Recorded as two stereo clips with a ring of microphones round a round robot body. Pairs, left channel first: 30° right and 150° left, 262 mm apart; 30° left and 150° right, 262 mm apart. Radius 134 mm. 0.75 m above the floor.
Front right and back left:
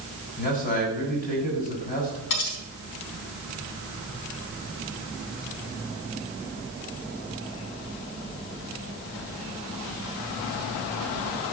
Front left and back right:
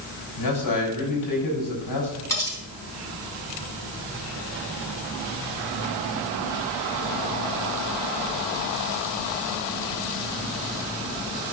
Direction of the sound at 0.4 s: 30° left.